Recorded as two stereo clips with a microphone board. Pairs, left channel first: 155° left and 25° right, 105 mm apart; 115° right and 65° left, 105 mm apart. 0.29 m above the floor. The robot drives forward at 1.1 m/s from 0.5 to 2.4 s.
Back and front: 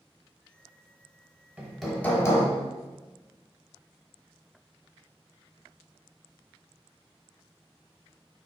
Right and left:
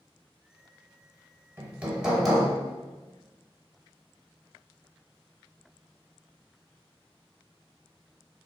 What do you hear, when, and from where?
1.6 s hammering: 25° left, 1.0 m; by 2.5 s 165° left, 1.1 m